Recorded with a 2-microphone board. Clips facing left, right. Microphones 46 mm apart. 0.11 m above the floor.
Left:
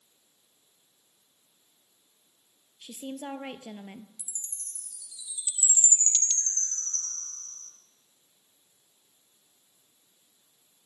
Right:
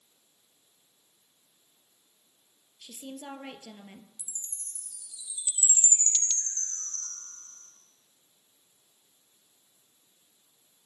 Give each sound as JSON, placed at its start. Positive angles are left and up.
{"t": 2.8, "sound": "a woman speaking", "side_deg": 20, "distance_m": 1.8}
{"t": 4.2, "sound": "a chime", "side_deg": -25, "distance_m": 3.5}